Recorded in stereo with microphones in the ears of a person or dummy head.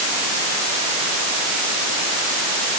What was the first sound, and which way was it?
Only background noise.